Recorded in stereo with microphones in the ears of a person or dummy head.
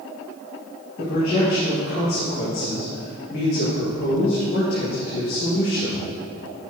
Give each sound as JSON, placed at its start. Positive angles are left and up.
{"t": 1.0, "sound": "a man speaking", "side_deg": 50, "distance_m": 2.5}